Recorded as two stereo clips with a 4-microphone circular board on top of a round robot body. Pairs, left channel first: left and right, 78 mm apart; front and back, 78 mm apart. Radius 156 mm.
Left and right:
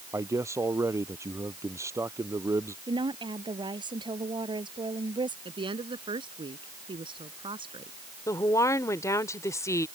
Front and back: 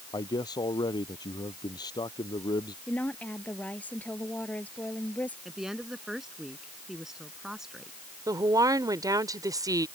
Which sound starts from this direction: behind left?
A woman speaking, at 8.3 s.